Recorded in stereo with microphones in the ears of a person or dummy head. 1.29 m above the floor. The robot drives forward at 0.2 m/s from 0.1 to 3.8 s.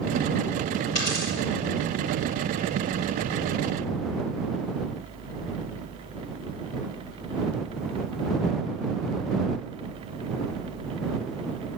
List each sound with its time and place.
0.9 s a dropped coin: 30° left (ahead or behind), 4.5 m